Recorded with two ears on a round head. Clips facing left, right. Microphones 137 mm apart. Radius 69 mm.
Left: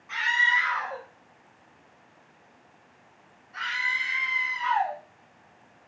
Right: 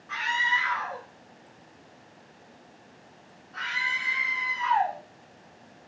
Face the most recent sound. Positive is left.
turn(degrees=0)  # may be behind; listen again after turning